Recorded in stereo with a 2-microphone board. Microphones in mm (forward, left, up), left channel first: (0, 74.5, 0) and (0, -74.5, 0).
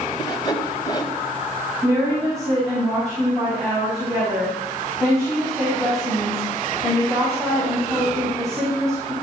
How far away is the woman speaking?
About 6 m.